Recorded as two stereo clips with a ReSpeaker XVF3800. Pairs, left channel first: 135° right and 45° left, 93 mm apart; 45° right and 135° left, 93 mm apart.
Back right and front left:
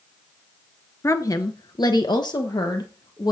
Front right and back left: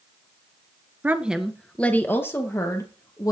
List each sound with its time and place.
1.0 s a woman speaking: 170° right, 1.2 m; by 3.3 s 95° right, 3 m